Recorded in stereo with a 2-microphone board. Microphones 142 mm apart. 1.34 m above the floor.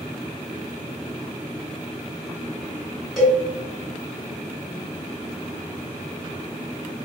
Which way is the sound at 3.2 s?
5° right (ahead or behind).